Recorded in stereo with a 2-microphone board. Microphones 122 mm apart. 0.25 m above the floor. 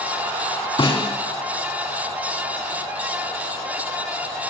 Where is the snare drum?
45° left (ahead or behind), 1.6 m.